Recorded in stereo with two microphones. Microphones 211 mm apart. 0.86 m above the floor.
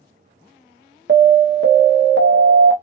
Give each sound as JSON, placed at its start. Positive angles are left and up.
{"t": 1.1, "sound": "an alarm", "side_deg": -60, "distance_m": 0.8}